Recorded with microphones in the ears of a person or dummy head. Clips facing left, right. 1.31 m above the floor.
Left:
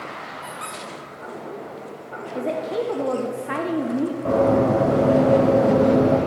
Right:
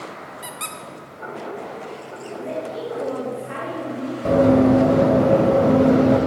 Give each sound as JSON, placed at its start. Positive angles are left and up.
{"t": 0.4, "sound": "a squeak", "side_deg": -25, "distance_m": 0.7}
{"t": 2.4, "sound": "a woman speaking", "side_deg": 70, "distance_m": 0.8}
{"t": 4.2, "sound": "running footsteps", "side_deg": -20, "distance_m": 3.0}